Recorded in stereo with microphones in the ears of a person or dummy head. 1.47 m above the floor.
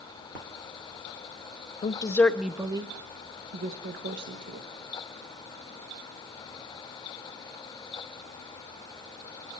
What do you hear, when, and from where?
1.8 s a woman speaking: 30° left (ahead or behind), 0.7 m; by 4.7 s 60° right (ahead or behind), 1.6 m